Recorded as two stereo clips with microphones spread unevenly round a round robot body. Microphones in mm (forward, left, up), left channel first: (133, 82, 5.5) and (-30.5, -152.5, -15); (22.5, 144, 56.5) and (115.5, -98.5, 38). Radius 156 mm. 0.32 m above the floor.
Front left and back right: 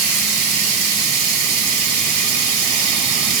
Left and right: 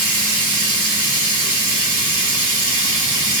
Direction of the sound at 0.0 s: 120° right.